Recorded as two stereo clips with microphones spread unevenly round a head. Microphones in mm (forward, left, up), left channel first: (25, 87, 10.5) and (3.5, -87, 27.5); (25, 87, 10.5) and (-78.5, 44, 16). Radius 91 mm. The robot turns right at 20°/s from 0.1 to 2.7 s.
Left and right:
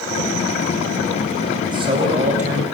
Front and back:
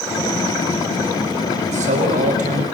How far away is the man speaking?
About 6 m.